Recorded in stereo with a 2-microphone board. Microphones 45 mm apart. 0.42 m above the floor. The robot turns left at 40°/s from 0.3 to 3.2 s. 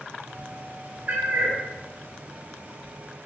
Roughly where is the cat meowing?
Right.